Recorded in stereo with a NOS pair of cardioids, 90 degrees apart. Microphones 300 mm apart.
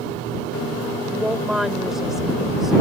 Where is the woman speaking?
Straight ahead.